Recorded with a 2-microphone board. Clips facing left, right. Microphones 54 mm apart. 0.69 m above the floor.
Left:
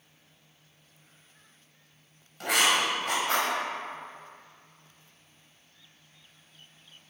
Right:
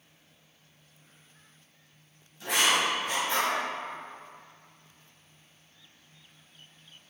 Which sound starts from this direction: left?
Writing, at 2.4 s.